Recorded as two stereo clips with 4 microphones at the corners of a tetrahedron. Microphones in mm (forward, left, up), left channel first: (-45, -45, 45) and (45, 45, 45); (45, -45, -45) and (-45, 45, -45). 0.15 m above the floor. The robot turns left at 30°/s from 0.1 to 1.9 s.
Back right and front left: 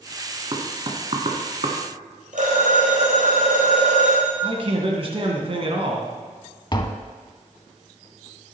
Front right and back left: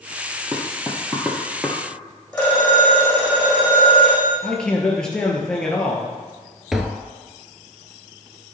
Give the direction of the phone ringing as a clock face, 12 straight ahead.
11 o'clock.